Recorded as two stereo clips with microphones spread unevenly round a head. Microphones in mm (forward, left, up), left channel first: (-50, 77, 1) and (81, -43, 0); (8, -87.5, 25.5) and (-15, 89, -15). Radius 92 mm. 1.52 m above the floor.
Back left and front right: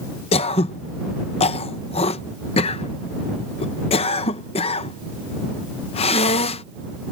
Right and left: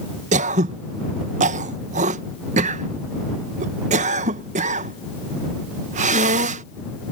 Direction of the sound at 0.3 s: 135° left.